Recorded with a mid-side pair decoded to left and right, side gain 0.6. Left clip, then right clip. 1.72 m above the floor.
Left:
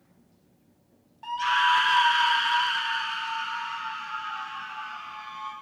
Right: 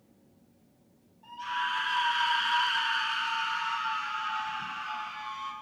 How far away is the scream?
About 1.8 m.